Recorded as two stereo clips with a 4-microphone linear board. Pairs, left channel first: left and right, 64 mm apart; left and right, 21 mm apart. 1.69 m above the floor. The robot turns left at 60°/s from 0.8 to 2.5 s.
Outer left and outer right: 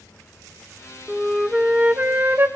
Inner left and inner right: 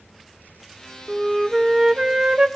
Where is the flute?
Straight ahead, 0.7 m; by 2.5 s 80° right, 0.7 m.